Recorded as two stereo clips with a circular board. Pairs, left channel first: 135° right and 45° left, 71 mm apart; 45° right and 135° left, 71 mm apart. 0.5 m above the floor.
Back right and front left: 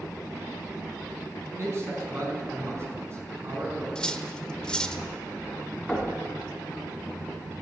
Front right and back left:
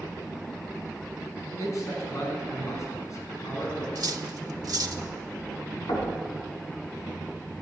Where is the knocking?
45° right, 4 m.